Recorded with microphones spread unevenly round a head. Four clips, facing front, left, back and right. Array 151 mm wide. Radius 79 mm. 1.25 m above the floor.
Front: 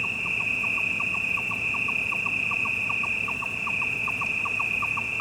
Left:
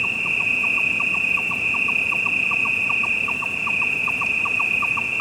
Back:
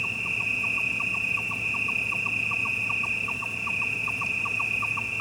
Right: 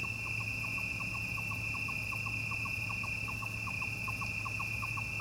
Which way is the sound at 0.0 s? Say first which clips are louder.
Left 15 dB, front 1 dB; 90° left.